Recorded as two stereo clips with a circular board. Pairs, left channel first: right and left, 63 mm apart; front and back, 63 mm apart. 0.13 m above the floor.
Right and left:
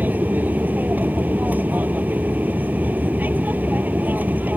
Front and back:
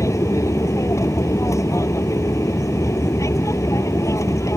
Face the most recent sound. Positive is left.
turn(degrees=30)